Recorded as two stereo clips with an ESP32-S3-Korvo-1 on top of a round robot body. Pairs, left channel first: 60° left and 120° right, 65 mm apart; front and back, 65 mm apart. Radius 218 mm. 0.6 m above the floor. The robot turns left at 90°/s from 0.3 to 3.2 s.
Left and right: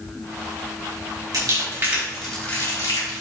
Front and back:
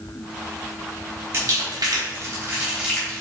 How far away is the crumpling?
About 4 m.